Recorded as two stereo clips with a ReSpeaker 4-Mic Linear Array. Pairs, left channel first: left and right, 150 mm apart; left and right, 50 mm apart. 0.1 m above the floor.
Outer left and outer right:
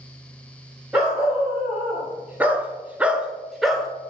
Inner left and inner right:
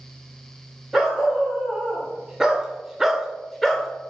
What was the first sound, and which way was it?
A dog barking, 10° right (ahead or behind).